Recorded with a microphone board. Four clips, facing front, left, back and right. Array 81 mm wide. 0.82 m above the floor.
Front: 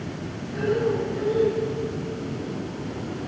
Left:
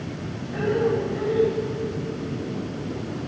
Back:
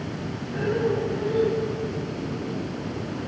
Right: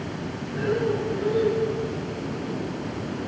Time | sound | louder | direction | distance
0.5 | breathing | left 2 dB, front 1 dB | 110° left | 8 m